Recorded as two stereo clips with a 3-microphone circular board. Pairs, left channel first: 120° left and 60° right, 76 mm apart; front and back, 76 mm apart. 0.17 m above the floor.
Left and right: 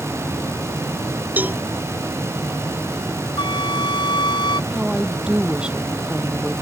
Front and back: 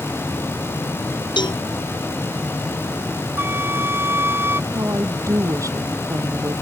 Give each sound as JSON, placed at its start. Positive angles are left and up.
{"t": 1.4, "sound": "a cowbell", "azimuth_deg": 5}
{"t": 3.4, "sound": "a flute", "azimuth_deg": 120}
{"t": 4.7, "sound": "a woman speaking", "azimuth_deg": -135}